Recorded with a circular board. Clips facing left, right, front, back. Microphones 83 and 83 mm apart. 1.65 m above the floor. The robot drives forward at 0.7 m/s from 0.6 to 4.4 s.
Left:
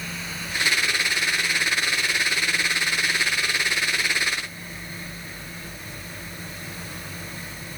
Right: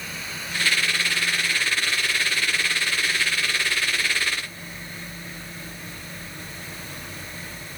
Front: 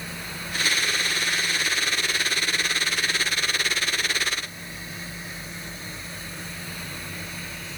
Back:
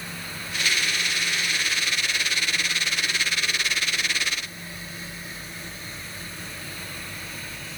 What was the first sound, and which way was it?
Only background noise.